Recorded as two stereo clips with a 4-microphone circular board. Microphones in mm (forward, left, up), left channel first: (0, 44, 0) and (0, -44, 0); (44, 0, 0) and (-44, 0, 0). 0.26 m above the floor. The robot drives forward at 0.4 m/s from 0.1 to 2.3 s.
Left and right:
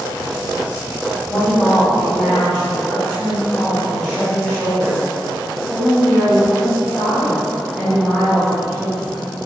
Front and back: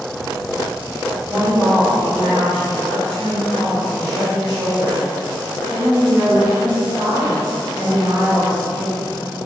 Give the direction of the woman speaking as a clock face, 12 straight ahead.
6 o'clock.